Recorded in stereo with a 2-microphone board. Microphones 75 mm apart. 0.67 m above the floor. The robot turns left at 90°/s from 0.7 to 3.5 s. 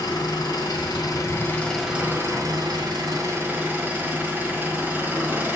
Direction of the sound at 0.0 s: 100° left.